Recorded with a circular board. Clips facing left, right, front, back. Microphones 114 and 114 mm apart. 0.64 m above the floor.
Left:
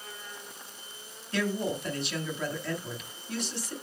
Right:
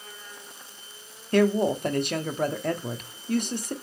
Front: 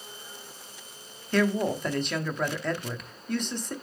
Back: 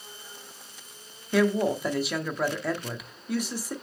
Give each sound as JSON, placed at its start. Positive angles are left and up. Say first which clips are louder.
{"t": 1.3, "sound": "a woman speaking", "louder": "right 9 dB, back 2 dB", "azimuth_deg": -100, "distance_m": 0.9}